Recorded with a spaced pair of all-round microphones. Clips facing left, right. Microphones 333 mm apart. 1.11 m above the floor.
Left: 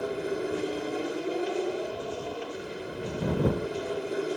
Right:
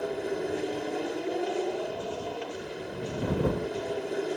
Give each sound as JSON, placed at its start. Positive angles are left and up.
{"t": 0.0, "sound": "an aircraft", "side_deg": 5}